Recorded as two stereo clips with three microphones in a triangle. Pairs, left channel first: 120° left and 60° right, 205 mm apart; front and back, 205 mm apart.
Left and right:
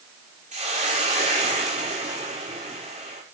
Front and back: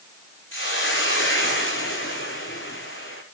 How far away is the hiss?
About 6.5 m.